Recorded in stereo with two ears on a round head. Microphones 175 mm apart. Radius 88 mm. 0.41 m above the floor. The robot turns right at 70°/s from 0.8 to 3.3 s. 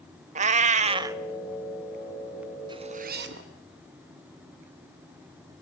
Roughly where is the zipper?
Behind right.